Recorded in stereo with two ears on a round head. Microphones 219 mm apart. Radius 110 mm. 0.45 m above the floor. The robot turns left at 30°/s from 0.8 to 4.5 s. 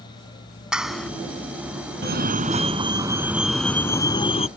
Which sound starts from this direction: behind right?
A fire alarm, at 2.0 s.